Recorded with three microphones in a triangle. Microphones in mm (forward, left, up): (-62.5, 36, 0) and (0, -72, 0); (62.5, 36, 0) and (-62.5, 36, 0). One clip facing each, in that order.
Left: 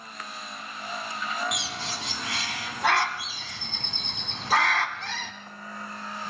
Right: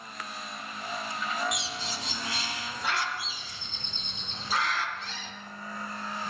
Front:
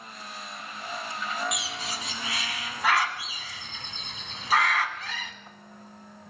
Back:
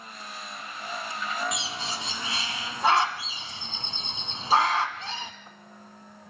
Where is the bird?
120° left, 1.5 m.